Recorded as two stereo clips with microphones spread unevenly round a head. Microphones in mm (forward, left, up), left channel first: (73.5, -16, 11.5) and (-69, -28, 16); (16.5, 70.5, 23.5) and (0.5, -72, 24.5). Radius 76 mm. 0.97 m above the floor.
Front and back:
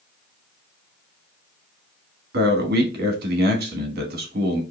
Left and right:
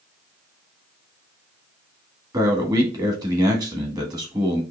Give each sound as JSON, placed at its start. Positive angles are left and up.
{"t": 2.3, "sound": "a man speaking", "azimuth_deg": -160, "distance_m": 1.4}